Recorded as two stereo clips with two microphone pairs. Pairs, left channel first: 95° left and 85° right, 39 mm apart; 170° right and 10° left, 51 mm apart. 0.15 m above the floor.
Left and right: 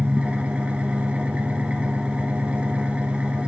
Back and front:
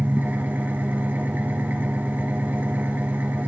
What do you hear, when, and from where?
0.0 s an engine running: 35° right, 1.8 m